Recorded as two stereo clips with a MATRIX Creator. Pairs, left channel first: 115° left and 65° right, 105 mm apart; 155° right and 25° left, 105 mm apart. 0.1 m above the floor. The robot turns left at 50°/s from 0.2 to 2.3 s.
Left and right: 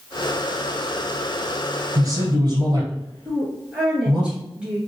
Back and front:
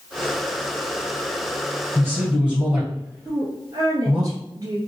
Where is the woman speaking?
5° left, 2 m.